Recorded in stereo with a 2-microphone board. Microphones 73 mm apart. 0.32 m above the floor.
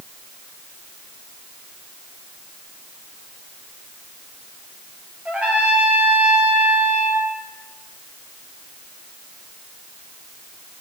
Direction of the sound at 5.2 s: 15° right (ahead or behind).